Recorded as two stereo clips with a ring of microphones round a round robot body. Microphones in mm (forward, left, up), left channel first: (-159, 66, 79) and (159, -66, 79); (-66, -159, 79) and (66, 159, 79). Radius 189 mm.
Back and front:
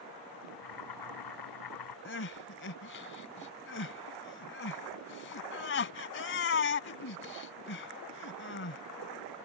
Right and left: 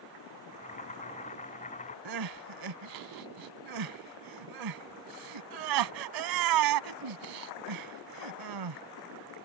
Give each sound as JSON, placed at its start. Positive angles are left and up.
{"t": 0.5, "sound": "boiling", "azimuth_deg": 180}
{"t": 2.0, "sound": "crying", "azimuth_deg": 100}